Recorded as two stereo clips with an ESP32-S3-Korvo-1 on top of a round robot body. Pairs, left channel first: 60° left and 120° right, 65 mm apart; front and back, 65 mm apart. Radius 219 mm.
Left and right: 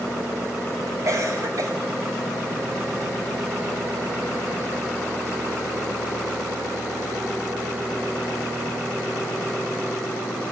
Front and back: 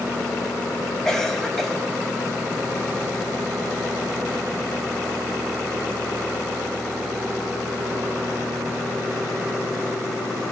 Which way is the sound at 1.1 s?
85° right.